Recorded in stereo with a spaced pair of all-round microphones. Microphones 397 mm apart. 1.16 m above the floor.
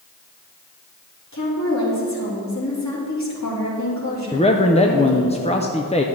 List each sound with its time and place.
1.3 s a woman speaking: 45° left (ahead or behind), 3 m
4.3 s a man speaking: 15° left (ahead or behind), 0.5 m